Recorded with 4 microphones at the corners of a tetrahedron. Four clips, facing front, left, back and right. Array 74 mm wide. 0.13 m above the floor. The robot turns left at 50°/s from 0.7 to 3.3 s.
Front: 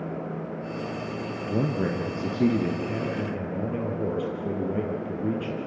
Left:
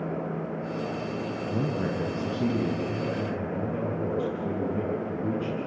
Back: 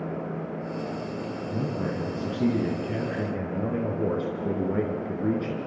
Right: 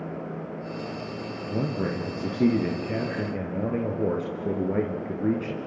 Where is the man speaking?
10° right, 2.5 m; by 5.6 s 100° right, 2.5 m.